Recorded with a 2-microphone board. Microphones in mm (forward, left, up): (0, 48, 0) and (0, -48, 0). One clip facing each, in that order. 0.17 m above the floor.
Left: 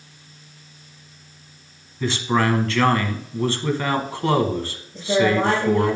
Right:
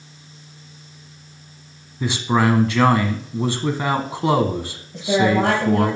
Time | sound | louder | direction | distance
2.0 | a man speaking | right 2 dB | 15° right (ahead or behind) | 1.0 m
4.9 | a woman speaking | right 1 dB | 70° right (ahead or behind) | 4 m